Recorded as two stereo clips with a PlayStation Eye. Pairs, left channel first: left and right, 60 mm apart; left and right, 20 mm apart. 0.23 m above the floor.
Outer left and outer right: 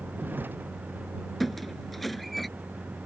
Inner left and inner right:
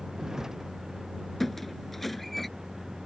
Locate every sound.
0.0 s a vehicle: 35° right (ahead or behind)
1.4 s a squeak: centre (ahead or behind)